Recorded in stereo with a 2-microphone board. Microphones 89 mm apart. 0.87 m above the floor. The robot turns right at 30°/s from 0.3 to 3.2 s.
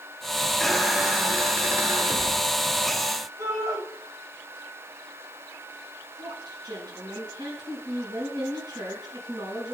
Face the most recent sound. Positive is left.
turn(degrees=-50)  # may be behind; listen again after turning